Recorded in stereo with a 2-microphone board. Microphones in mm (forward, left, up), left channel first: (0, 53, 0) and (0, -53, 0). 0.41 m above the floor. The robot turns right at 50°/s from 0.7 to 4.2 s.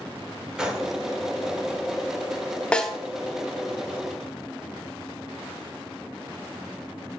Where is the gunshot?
5° right (ahead or behind), 0.7 m; by 0.9 s centre (ahead or behind), 0.7 m.